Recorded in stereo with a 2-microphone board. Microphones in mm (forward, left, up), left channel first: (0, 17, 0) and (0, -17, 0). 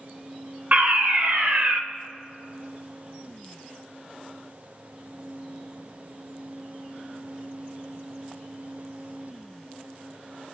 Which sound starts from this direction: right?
A fire alarm, at 0.7 s.